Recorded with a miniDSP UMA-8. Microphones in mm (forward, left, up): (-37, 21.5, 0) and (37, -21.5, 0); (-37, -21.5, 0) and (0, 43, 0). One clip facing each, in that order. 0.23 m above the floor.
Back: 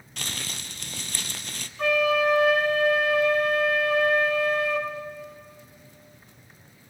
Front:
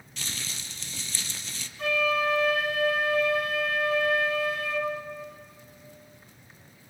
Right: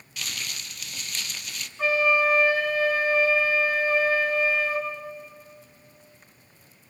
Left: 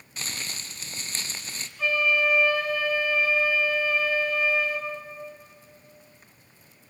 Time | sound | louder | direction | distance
0.2 | crumpling | back 3 dB, even | 120° left | 1.2 m
1.8 | a flute | back 4 dB, right 3 dB | straight behind | 4 m